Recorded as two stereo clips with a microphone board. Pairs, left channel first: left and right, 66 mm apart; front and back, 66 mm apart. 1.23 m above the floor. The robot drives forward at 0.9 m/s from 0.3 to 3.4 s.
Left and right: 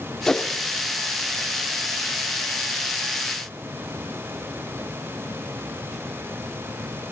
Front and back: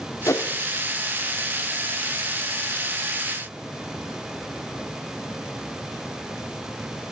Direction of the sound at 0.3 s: 15° left.